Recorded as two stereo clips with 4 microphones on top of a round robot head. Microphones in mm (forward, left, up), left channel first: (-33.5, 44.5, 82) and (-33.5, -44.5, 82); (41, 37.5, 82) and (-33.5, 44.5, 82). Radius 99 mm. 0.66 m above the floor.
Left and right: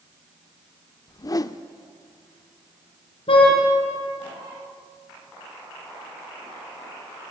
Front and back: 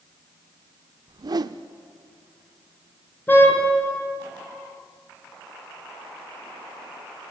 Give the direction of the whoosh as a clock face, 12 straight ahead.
7 o'clock.